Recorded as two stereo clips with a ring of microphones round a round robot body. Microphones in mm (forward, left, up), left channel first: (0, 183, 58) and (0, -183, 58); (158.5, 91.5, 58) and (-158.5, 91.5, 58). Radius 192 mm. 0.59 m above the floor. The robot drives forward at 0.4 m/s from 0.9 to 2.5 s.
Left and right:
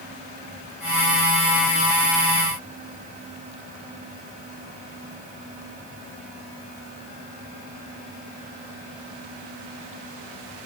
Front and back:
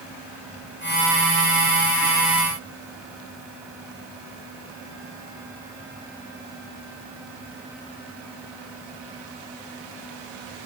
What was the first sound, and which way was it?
Only background noise.